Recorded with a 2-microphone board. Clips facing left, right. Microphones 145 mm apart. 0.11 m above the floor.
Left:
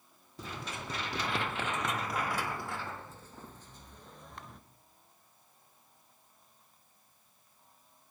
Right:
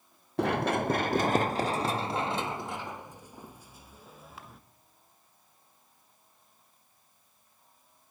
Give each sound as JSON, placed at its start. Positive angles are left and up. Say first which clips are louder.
{"t": 0.4, "sound": "running footsteps", "louder": "right 16 dB", "side_deg": -70, "distance_m": 1.0}